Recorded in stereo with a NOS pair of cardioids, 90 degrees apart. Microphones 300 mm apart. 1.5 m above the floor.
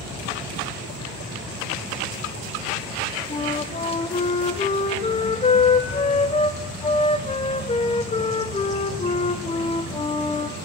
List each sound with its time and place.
3.3 s a flute: 20° left, 1.0 m